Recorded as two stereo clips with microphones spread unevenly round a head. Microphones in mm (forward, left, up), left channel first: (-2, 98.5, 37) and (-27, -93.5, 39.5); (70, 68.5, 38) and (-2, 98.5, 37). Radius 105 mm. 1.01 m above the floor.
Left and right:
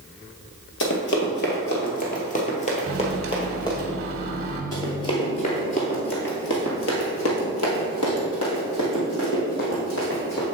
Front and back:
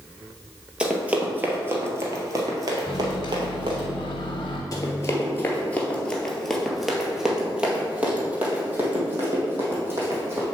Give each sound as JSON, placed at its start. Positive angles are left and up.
{"t": 0.8, "sound": "running footsteps", "azimuth_deg": 80, "distance_m": 1.5}
{"t": 2.9, "sound": "a microwave", "azimuth_deg": -55, "distance_m": 0.9}
{"t": 4.7, "sound": "running footsteps", "azimuth_deg": 10, "distance_m": 1.4}